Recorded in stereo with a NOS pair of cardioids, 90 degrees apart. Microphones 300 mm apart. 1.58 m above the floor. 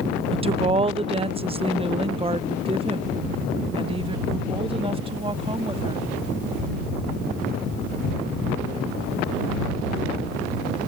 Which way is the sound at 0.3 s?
20° right.